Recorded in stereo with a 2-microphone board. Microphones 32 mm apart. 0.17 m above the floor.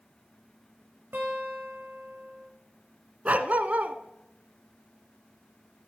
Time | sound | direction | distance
1.1 | a guitar | 80° right | 4.5 m
3.2 | a dog barking | 50° right (ahead or behind) | 0.8 m